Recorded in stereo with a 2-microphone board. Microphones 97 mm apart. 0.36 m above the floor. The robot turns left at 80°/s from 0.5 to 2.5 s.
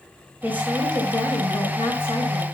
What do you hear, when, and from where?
0.4 s a woman speaking: 160° right, 4.5 m; by 2.5 s 45° left, 4.5 m